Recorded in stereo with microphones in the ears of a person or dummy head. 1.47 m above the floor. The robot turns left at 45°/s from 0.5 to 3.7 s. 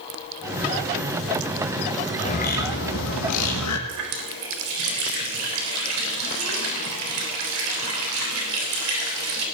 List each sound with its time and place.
2.2 s a bird: 145° left, 1.7 m; by 3.8 s 80° left, 1.7 m
3.9 s a running tap: 80° right, 3.5 m